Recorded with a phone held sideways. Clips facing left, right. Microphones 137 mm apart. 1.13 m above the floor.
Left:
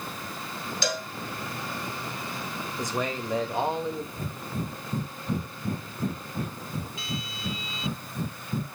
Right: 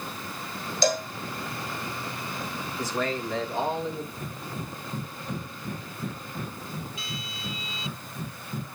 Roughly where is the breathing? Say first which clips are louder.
Left 2 dB; left.